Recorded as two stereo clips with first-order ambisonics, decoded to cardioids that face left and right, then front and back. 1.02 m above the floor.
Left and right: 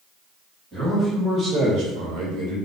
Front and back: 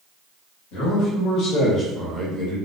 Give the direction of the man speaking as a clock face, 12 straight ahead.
12 o'clock.